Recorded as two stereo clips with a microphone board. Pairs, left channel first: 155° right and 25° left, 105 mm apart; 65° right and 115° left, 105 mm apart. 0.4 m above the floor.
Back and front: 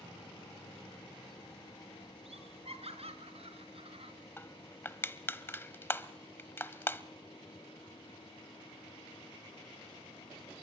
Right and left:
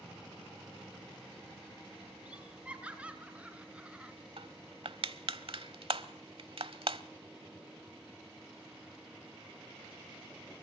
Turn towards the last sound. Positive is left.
turn(degrees=135)